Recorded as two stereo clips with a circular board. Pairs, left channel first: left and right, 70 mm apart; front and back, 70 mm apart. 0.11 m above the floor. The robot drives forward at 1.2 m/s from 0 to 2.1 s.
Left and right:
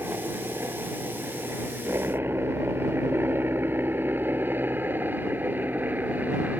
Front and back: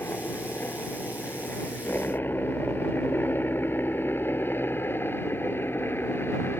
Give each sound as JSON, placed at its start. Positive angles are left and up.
{"t": 0.0, "sound": "a helicopter", "azimuth_deg": -50}